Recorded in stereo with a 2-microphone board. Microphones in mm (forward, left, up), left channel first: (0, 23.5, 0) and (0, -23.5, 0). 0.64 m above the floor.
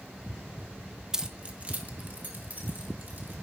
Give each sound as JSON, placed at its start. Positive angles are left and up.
{"t": 1.1, "sound": "keys jangling", "side_deg": -10, "distance_m": 0.6}